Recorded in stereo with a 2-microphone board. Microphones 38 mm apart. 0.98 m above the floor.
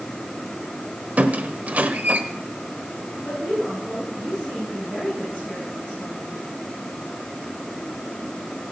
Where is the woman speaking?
15° left (ahead or behind), 9 m.